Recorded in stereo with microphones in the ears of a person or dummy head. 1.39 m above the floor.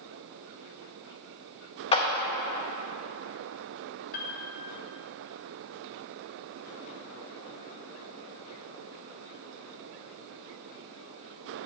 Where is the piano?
45° left (ahead or behind), 1.0 m.